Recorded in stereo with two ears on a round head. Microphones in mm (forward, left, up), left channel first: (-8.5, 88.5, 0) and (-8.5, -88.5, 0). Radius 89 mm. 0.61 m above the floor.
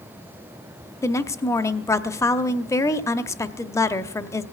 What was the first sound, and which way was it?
A woman speaking, 15° left (ahead or behind).